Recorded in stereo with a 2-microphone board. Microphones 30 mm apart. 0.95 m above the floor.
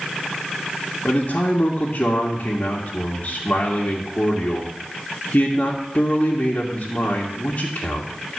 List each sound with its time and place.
1.1 s a man speaking: 55° left (ahead or behind), 1.8 m